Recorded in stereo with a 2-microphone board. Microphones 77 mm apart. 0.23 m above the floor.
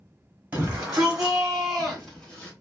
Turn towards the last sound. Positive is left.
turn(degrees=15)  # may be behind; listen again after turning